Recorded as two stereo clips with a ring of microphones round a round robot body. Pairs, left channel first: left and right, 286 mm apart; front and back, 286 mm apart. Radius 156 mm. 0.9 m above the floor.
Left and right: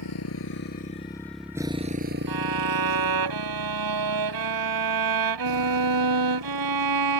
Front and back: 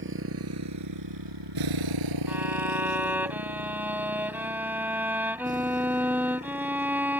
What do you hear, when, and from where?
0.0 s a motorcycle: 130° left; by 7.2 s 110° right
2.3 s a violin: 95° right